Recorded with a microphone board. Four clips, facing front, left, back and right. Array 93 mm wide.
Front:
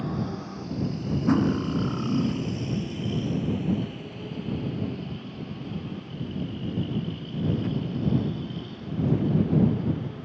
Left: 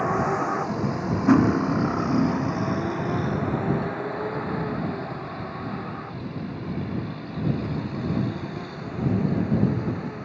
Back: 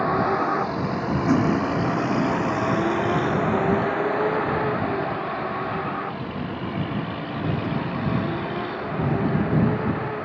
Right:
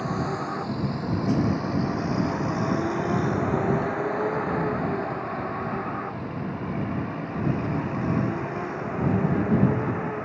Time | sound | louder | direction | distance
0.0 | a vehicle | left 5 dB, back 11 dB | 150° left | ?
1.3 | cutlery clinking | left 8 dB, back 2 dB | 100° left | ?